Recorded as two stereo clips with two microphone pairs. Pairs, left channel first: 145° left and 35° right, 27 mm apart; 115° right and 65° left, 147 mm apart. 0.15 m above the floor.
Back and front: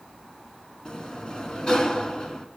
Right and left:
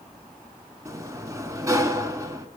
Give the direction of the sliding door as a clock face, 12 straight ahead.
8 o'clock.